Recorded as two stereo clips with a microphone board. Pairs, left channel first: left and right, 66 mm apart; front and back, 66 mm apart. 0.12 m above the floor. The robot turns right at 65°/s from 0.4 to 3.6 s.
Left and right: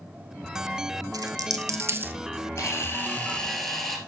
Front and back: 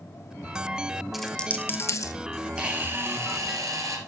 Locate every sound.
1.1 s a dropped coin: 95° right, 0.5 m; by 2.1 s 30° right, 0.5 m
2.6 s a camera shutter: 110° left, 2 m; by 4.0 s 175° left, 2 m